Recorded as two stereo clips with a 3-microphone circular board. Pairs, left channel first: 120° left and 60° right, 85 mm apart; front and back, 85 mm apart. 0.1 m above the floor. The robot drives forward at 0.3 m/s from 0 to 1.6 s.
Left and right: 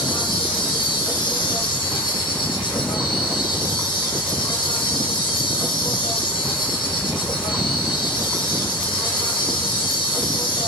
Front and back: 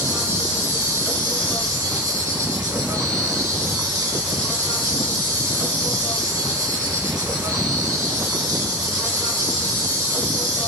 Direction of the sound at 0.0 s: 125° left.